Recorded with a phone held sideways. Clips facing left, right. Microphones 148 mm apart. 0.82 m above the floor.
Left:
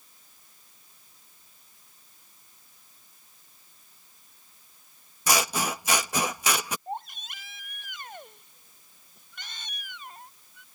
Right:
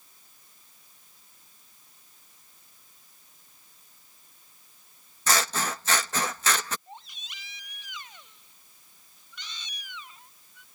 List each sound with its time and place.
5.3 s scissors: 15° left (ahead or behind)
6.9 s a baby crying: 60° left (ahead or behind)